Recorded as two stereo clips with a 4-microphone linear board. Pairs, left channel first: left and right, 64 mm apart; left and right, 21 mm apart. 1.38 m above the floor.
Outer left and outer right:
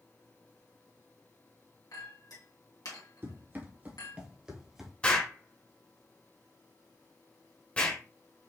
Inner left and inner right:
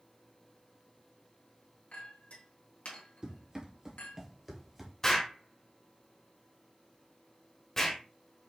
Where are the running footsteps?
40° right (ahead or behind), 1.9 m; by 4.9 s 5° right (ahead or behind), 1.7 m.